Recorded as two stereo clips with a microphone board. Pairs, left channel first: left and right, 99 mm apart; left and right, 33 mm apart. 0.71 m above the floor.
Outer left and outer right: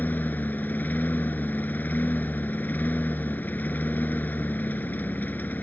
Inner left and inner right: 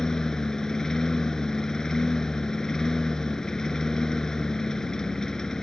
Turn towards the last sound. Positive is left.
turn(degrees=15)  # may be behind; listen again after turning